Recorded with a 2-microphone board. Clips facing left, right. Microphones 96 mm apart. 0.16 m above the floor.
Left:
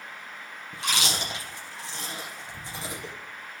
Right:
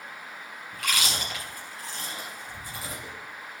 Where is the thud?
No thud in this recording.